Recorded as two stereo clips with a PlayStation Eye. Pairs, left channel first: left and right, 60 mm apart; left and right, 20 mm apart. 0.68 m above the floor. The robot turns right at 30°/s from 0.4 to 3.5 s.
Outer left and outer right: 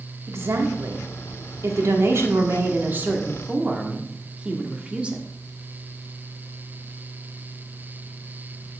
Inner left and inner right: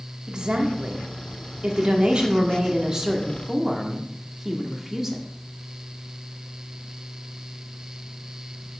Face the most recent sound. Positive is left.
turn(degrees=-20)